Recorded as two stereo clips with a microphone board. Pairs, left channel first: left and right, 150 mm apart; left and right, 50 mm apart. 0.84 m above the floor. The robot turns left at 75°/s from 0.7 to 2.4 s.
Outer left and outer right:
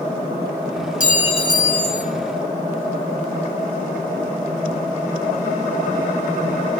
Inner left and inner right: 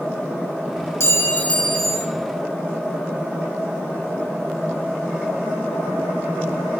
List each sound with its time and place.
1.0 s a clink: 65° left, 0.9 m; by 2.0 s 15° right, 0.9 m